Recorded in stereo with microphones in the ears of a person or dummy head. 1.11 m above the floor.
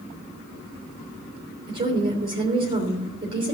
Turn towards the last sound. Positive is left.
turn(degrees=-35)  # may be behind; listen again after turning